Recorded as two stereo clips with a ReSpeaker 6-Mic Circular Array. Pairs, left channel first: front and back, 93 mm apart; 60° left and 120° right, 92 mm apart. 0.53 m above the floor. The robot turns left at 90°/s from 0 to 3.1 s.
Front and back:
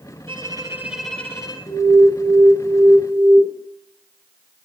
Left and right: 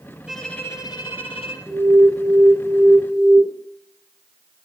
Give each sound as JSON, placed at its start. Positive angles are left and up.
{"t": 0.3, "sound": "a violin", "azimuth_deg": 155, "distance_m": 3.5}
{"t": 1.7, "sound": "an alarm", "azimuth_deg": 15, "distance_m": 6.0}